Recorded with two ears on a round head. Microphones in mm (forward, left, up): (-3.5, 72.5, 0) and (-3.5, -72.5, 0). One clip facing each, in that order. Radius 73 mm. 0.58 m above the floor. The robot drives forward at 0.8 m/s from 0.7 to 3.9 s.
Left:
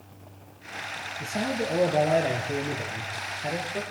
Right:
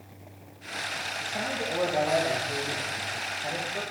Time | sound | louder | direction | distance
1.2 | a man speaking | left 5 dB | 35° left (ahead or behind) | 8.5 m